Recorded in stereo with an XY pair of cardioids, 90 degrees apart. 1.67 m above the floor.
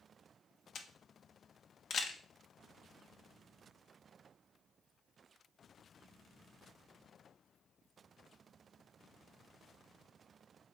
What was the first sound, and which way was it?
A camera shutter, 60° left.